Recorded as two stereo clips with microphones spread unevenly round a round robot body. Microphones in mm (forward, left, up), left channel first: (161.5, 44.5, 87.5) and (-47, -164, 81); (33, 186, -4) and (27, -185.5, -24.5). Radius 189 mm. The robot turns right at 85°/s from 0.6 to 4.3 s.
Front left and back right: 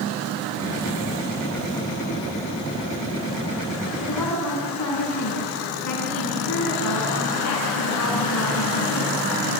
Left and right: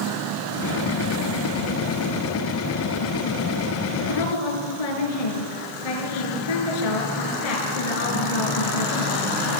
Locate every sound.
4.0 s a woman speaking: 60° left, 5.5 m; by 9.2 s 85° left, 5.5 m